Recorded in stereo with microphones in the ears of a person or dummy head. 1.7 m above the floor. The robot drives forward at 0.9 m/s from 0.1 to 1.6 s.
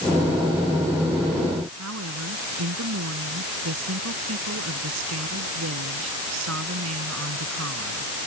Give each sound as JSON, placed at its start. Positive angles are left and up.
{"t": 1.8, "sound": "a woman speaking", "side_deg": -85}